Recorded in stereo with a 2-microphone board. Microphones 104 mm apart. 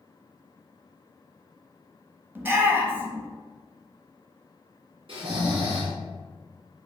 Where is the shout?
20° right (ahead or behind), 0.9 m.